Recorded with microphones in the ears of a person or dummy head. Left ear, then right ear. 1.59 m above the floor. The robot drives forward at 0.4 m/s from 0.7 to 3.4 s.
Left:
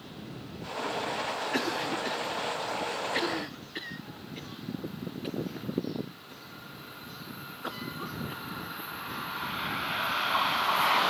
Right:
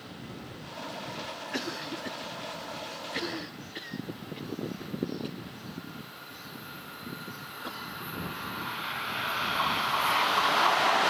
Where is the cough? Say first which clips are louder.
Left 3 dB; 10° left (ahead or behind); by 8.9 s 5° left (ahead or behind).